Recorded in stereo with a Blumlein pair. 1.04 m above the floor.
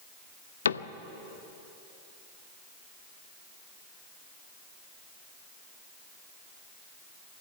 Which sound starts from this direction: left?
A cupboard door, at 0.7 s.